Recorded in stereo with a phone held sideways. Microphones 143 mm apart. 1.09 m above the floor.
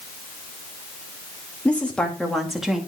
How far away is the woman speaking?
About 2.5 m.